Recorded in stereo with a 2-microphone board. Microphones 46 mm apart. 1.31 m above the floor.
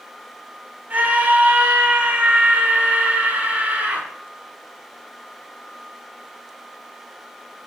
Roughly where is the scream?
Right.